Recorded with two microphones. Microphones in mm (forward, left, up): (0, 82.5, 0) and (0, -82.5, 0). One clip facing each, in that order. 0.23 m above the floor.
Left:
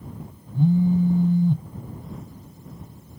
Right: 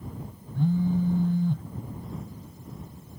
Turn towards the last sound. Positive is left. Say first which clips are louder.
# left 5 dB
turn(degrees=15)  # may be behind; listen again after turning